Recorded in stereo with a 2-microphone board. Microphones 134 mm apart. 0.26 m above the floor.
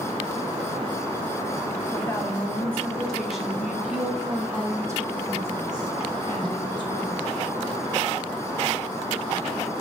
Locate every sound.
1.9 s a woman speaking: 20° left (ahead or behind), 1.8 m; by 7.4 s 40° right (ahead or behind), 3 m